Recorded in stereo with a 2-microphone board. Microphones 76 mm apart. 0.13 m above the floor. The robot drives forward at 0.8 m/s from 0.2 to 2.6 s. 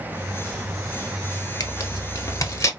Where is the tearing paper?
55° left (ahead or behind), 1.1 m; by 2.7 s 45° left (ahead or behind), 1.3 m.